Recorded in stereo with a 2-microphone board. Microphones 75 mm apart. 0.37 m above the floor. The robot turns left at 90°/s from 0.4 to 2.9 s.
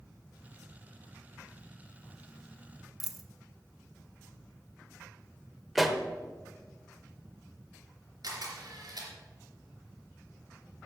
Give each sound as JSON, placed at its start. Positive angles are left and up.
{"t": 3.0, "sound": "a dropped coin", "side_deg": -5, "distance_m": 0.7}
{"t": 5.8, "sound": "a pop", "side_deg": 0, "distance_m": 0.8}
{"t": 8.2, "sound": "a camera shutter", "side_deg": -55, "distance_m": 3.5}